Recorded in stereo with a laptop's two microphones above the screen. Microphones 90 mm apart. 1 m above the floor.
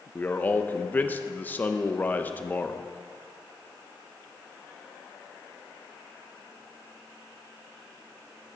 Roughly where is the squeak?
I don't hear a squeak.